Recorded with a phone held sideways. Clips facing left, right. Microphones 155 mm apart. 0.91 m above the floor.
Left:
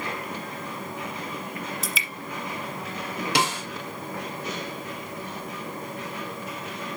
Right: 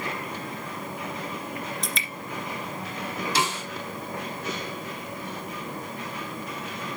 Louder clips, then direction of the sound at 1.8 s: Even; 5° left (ahead or behind).